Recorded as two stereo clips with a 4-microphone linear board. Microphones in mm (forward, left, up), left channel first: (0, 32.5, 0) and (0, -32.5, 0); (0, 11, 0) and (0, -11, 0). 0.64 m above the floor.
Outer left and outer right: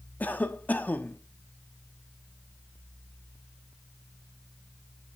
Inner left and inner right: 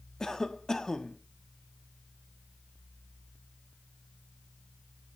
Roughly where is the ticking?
I don't hear ticking.